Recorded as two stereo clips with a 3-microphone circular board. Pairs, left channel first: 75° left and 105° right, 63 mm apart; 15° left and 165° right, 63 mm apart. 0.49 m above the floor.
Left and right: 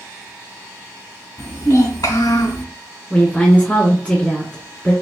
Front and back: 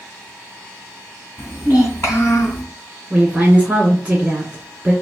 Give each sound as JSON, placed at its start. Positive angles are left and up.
{"t": 1.4, "sound": "a child speaking", "azimuth_deg": 70, "distance_m": 3.0}
{"t": 3.1, "sound": "a woman speaking", "azimuth_deg": 130, "distance_m": 1.5}